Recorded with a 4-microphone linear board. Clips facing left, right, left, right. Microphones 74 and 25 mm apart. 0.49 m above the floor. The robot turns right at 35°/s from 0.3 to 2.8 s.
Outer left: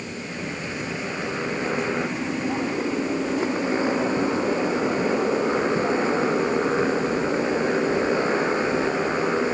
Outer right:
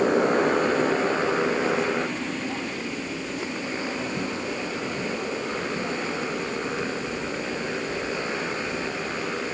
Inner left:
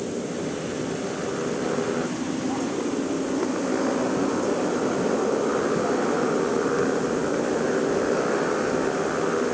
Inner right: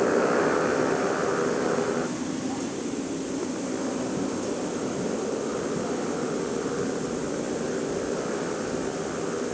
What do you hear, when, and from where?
0.0 s a motorcycle: 60° right; by 9.5 s 25° left